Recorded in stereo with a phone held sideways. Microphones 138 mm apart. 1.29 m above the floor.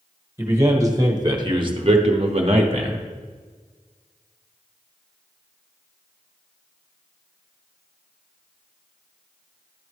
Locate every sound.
0.4 s a man speaking: 20° right (ahead or behind), 1.6 m; by 3.0 s 40° right (ahead or behind), 0.8 m